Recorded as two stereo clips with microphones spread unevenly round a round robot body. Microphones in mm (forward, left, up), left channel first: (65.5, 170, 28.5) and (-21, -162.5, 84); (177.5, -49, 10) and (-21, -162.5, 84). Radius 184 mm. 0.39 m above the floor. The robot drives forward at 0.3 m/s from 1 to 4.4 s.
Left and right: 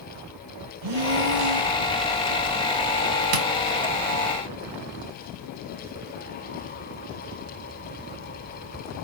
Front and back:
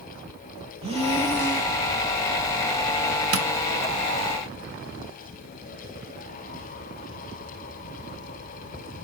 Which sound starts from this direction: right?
Breathing, at 0.8 s.